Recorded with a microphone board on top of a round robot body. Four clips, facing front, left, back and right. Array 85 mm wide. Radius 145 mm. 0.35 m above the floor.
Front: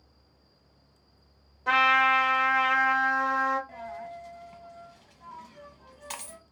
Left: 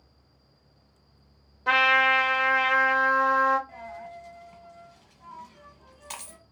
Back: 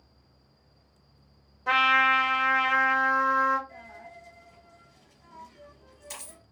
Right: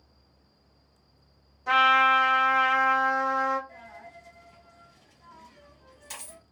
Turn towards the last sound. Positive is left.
turn(degrees=30)